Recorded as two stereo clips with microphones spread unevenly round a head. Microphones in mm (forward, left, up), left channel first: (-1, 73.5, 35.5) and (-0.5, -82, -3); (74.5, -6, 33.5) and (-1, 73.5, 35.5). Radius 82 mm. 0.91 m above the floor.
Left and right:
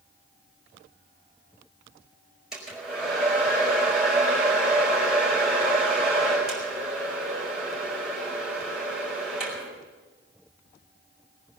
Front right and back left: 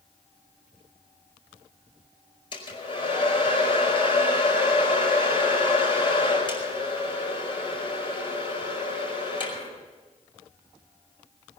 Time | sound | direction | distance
2.5 | a hair dryer | 5° right | 5 m